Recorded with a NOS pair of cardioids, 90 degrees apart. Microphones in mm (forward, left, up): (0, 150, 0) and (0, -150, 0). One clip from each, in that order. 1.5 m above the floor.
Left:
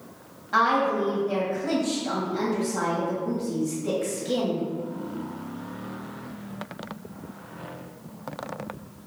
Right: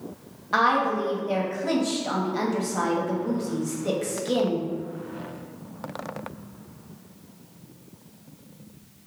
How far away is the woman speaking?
About 1.1 m.